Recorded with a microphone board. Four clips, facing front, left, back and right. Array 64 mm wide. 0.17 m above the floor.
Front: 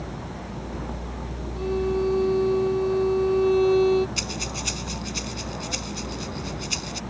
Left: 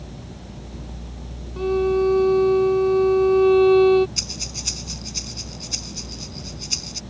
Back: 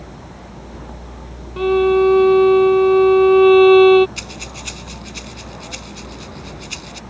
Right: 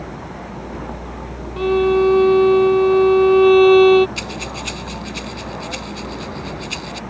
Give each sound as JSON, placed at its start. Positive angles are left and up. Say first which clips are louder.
{"t": 0.0, "sound": "a vehicle", "louder": "right 9 dB, front 2 dB", "azimuth_deg": -85}
{"t": 1.6, "sound": "a violin", "louder": "right 5 dB, back 11 dB", "azimuth_deg": -155}
{"t": 4.2, "sound": "breathing", "louder": "right 10 dB, front 1 dB", "azimuth_deg": -100}